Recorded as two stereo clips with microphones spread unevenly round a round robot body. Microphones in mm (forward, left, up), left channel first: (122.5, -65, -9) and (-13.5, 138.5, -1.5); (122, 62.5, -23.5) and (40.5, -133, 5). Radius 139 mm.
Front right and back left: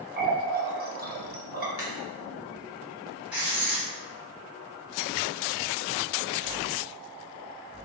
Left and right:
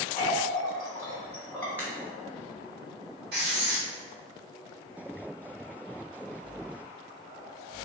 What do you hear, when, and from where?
0.2 s a running tap: 135° left, 0.5 m
1.8 s a crack: 25° right, 0.8 m
3.3 s writing: 150° right, 0.6 m